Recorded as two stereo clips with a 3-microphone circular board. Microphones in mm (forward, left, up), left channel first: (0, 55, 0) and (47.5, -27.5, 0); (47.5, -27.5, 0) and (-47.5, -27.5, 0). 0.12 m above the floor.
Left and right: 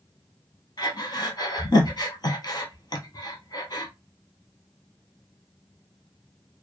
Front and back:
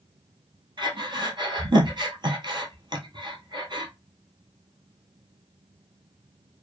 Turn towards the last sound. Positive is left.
turn(degrees=150)